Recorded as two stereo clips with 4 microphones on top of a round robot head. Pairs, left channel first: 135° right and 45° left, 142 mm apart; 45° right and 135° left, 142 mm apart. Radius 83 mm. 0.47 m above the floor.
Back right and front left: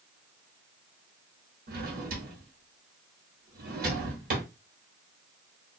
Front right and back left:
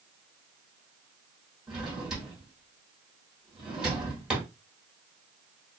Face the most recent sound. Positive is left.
turn(degrees=50)